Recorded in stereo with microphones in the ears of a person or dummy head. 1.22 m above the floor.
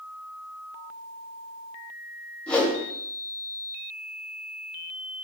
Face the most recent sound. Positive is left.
turn(degrees=10)  # may be behind; listen again after turning